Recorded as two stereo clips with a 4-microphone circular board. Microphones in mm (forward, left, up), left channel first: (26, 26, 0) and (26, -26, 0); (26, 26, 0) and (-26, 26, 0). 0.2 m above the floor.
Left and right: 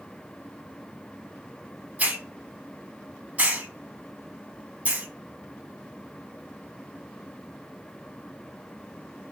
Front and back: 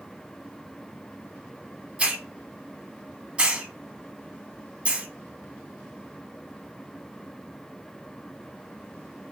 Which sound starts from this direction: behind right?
A hiss, at 2.0 s.